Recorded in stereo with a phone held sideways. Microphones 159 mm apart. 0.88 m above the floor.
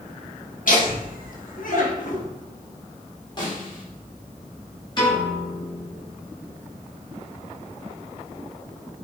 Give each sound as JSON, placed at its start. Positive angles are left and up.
{"t": 0.7, "sound": "laughter", "side_deg": 65, "distance_m": 2.5}
{"t": 3.4, "sound": "a snare drum", "side_deg": 30, "distance_m": 3.0}
{"t": 5.0, "sound": "a piano", "side_deg": 30, "distance_m": 3.5}